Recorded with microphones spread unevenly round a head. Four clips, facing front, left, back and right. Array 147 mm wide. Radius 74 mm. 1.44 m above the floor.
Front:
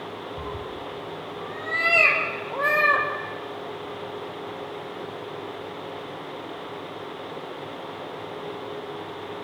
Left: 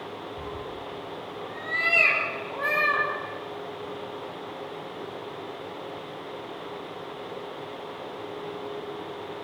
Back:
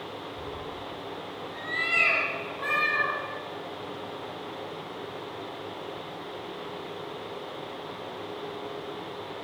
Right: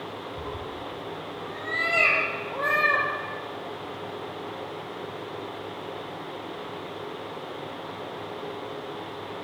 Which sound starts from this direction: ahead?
A cat meowing, at 0.4 s.